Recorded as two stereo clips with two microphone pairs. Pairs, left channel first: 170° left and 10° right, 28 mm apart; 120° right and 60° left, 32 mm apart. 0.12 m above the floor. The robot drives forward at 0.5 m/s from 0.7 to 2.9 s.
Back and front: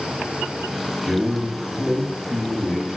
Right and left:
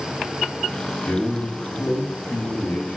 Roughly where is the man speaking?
Right.